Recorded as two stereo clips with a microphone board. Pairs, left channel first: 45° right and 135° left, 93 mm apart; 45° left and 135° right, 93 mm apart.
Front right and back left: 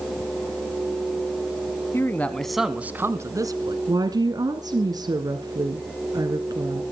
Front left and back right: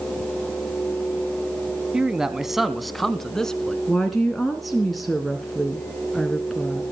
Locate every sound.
1.9 s a man speaking: 60° right, 1.4 m; by 3.8 s 125° left, 1.9 m
3.9 s a woman speaking: 135° left, 2 m